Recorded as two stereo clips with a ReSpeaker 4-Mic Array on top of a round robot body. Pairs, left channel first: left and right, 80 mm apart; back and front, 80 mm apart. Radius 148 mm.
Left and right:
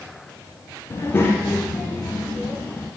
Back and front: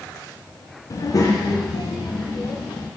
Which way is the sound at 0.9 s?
140° left.